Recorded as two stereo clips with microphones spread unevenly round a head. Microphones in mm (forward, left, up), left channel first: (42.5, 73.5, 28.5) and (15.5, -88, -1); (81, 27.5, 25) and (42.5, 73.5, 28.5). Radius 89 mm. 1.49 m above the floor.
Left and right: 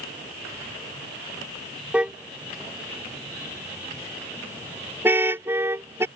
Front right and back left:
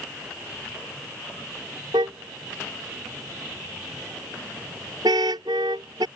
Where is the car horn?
175° left; by 6.1 s straight behind.